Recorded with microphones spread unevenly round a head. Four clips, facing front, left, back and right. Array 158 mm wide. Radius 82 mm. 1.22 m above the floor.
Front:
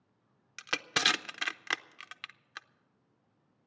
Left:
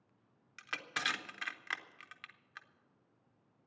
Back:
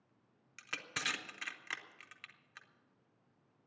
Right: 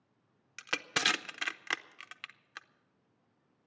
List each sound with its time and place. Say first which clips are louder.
0.6 s crushing: right 5 dB, front 10 dB; 50° right, 0.6 m